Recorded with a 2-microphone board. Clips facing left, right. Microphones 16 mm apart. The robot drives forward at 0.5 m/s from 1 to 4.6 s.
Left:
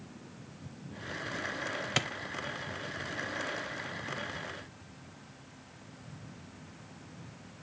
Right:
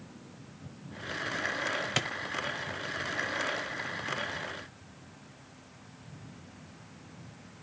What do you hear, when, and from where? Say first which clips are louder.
2.0 s a clap: left 1 dB; centre (ahead or behind), 0.7 m